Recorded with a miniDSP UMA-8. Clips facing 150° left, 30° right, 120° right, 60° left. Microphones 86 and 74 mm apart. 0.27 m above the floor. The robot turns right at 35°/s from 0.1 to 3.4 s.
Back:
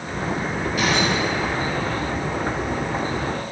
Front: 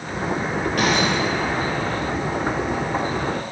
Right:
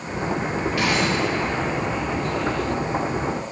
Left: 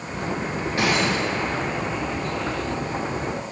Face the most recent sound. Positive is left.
turn(degrees=95)